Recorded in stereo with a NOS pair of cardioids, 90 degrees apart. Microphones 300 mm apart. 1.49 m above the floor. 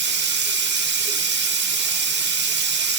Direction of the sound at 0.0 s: 35° right.